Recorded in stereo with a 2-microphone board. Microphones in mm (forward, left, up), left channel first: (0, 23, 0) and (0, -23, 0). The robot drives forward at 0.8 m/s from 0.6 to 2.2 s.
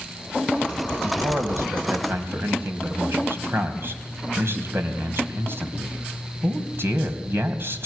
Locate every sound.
1.0 s a man speaking: 65° right (ahead or behind), 3 m; by 7.9 s 55° right (ahead or behind), 3 m